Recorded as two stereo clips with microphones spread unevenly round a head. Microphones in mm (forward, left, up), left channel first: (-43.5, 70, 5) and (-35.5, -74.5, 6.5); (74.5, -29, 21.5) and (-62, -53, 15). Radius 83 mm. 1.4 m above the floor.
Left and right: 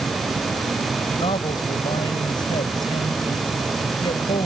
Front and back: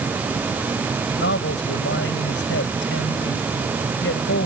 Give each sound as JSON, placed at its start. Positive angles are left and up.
{"t": 1.2, "sound": "a man speaking", "azimuth_deg": 25}